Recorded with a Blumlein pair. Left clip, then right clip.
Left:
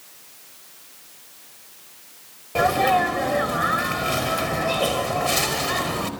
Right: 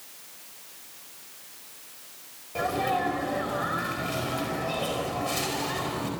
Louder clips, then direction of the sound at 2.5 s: Left 8 dB; 65° left.